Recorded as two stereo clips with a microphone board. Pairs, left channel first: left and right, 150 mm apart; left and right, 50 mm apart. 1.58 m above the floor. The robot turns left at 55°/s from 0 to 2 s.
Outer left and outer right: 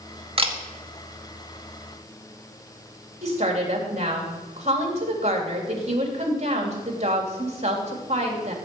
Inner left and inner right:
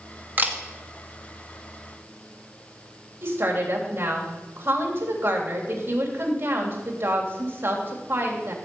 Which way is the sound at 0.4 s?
40° right (ahead or behind).